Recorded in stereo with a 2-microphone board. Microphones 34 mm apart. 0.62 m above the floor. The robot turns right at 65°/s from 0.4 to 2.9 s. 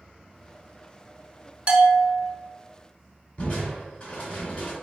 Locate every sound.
1.7 s a bell: 135° right, 1.0 m; by 2.3 s 95° right, 1.0 m
3.4 s crushing: 30° left (ahead or behind), 1.9 m